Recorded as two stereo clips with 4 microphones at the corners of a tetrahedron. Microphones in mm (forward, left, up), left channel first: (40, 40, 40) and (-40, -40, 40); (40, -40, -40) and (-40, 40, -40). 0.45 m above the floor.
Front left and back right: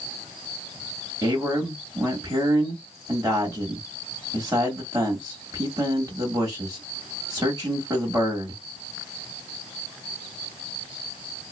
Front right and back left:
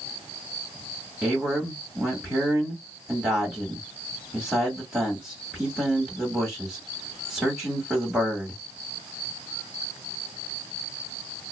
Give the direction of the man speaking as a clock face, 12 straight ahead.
5 o'clock.